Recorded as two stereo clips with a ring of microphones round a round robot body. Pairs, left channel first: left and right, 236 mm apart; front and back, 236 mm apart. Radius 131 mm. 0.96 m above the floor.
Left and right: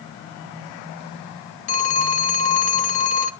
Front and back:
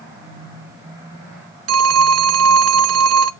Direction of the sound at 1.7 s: 155° left.